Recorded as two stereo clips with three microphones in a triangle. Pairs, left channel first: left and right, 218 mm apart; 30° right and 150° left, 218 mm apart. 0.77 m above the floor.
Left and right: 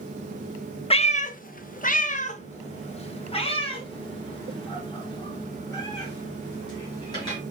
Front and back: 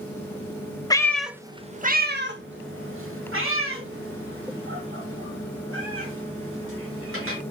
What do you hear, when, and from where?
0.9 s a cat meowing: 35° left, 0.5 m; by 7.4 s 160° left, 3.5 m